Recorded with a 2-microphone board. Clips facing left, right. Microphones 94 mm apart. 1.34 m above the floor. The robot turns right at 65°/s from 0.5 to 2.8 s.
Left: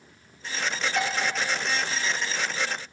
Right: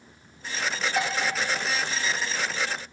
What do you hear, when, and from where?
1.0 s dishes clattering: 20° right (ahead or behind), 1.3 m; by 1.1 s 15° right (ahead or behind), 1.3 m